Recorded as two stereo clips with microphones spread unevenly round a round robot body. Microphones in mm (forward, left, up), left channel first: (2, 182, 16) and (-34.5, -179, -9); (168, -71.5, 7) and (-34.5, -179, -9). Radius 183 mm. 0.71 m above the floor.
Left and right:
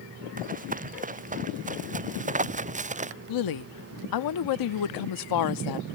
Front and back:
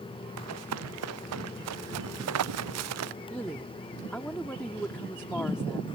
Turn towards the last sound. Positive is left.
turn(degrees=115)